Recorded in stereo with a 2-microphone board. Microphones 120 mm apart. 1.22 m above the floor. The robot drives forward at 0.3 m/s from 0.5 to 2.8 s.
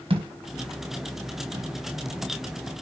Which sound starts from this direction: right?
A thud, at 0.1 s.